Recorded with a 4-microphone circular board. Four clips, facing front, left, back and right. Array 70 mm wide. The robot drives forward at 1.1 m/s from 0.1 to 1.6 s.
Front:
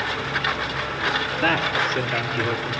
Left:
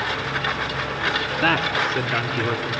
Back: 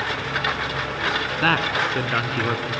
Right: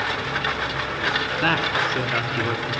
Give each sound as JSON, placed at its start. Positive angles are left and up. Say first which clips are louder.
{"t": 1.4, "sound": "a man speaking", "louder": "left 2 dB, back 1 dB", "azimuth_deg": 170, "distance_m": 1.4}